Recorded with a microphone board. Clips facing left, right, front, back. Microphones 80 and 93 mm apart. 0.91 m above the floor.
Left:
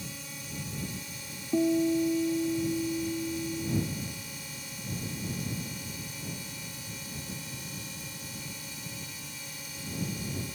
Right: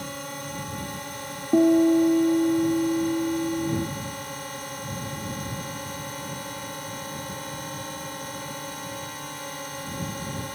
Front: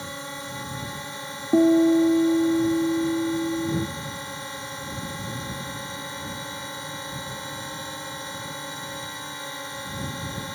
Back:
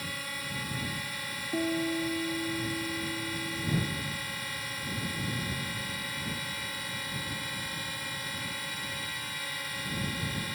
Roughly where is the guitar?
Ahead right.